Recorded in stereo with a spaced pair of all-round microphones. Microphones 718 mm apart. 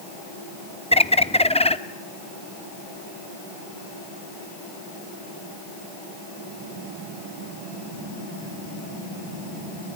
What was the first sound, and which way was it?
A bird, 10° left (ahead or behind).